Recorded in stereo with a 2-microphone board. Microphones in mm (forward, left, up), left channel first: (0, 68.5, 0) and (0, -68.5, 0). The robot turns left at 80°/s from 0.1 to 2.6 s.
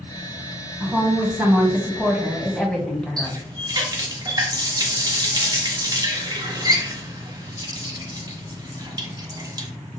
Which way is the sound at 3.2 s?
30° right (ahead or behind).